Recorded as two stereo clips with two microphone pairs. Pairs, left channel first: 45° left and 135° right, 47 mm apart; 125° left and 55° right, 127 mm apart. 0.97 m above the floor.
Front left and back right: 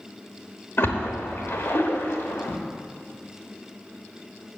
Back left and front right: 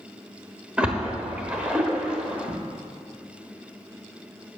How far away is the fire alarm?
No fire alarm in this recording.